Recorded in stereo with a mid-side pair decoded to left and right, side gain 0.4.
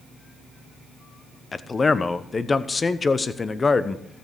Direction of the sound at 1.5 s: 35° left.